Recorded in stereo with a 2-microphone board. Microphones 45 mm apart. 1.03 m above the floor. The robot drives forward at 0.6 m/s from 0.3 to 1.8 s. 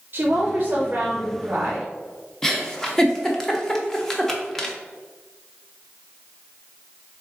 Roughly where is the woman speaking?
Right.